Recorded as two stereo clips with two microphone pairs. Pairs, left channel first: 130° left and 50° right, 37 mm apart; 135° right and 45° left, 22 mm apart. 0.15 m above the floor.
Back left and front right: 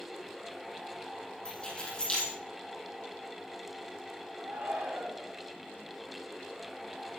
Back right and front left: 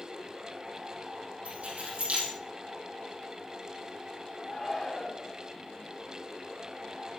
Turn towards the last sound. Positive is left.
turn(degrees=-60)